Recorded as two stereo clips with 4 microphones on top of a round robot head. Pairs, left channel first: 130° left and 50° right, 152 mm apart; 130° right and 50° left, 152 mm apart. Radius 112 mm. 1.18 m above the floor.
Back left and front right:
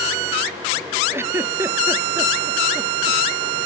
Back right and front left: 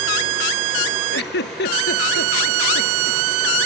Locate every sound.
1.1 s a giggle: 125° right